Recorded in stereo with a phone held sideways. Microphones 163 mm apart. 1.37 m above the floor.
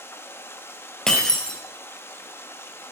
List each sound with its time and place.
0.0 s running water: 15° left (ahead or behind), 0.8 m
1.1 s breaking glass: 5° left (ahead or behind), 2 m